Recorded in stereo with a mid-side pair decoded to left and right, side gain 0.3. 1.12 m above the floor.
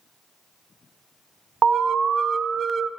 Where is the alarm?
60° right, 1.0 m.